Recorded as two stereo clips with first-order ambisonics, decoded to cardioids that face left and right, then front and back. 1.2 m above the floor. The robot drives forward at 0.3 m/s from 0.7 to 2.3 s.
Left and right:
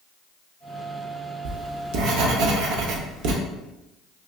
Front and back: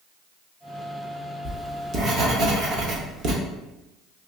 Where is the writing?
105° right, 0.5 m; by 3.4 s 130° right, 0.6 m.